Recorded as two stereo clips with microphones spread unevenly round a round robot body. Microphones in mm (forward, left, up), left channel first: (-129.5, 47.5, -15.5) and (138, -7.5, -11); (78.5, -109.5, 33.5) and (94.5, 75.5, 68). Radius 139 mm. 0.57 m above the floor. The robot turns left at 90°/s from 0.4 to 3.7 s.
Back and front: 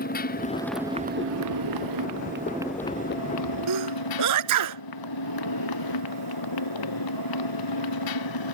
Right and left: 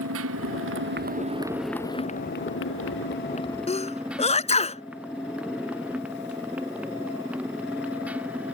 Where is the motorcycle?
110° left; by 8.5 s 170° left.